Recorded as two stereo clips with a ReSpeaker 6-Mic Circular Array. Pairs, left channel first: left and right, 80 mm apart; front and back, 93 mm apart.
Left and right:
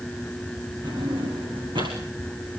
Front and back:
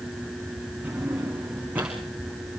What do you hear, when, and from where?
0.8 s a drawer: 105° right, 8.5 m